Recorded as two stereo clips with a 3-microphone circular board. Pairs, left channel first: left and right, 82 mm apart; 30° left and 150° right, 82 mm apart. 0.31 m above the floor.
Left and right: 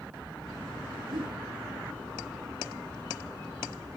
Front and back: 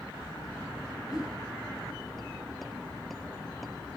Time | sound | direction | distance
1.1 | a whoosh | 70° right | 2 m